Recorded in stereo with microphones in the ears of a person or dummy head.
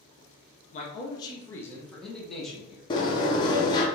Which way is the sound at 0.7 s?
40° left (ahead or behind).